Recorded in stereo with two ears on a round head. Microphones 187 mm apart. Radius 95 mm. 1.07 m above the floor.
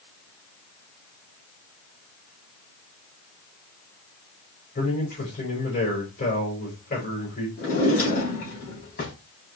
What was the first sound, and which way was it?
A man speaking, 35° left (ahead or behind).